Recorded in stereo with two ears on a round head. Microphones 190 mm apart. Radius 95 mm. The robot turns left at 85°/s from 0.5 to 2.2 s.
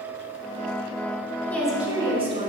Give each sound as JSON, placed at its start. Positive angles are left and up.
{"t": 1.5, "sound": "a woman speaking", "azimuth_deg": 15, "distance_m": 1.2}